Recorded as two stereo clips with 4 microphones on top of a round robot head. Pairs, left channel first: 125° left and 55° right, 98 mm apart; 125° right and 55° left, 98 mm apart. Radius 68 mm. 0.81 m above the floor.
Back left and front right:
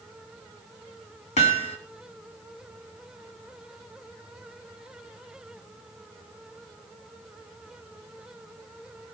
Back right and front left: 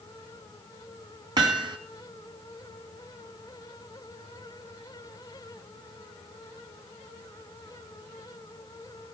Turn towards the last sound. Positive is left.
turn(degrees=105)